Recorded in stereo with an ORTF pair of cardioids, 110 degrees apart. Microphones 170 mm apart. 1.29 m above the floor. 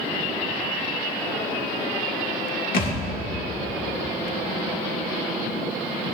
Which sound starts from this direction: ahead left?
A thud, at 2.7 s.